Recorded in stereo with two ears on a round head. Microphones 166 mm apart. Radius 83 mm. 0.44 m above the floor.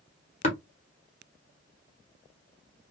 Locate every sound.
0.4 s tapping: 35° left (ahead or behind), 1.1 m